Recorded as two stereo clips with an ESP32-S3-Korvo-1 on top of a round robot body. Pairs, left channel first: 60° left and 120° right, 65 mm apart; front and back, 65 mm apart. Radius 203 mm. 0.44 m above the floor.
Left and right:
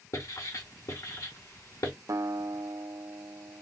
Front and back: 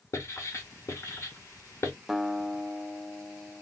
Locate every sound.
0.1 s writing: 35° left, 2.5 m
2.1 s a guitar: 95° right, 0.7 m